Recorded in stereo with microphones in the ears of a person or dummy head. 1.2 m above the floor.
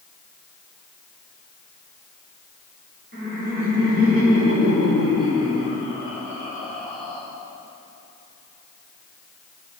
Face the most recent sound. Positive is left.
turn(degrees=0)  # may be behind; listen again after turning